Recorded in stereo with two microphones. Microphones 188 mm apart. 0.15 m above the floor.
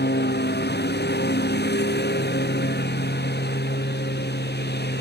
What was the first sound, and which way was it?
A lawn mower, 70° left (ahead or behind).